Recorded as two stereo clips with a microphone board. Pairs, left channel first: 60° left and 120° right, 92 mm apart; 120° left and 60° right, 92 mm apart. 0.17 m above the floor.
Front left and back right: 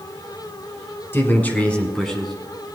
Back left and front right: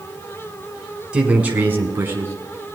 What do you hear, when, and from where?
1.1 s a man speaking: 10° left, 1.6 m; by 2.3 s 35° right, 1.5 m